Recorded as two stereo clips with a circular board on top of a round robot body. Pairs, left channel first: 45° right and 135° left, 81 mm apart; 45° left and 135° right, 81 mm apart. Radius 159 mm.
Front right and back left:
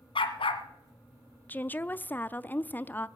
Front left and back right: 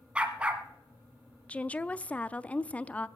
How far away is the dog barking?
About 1.2 m.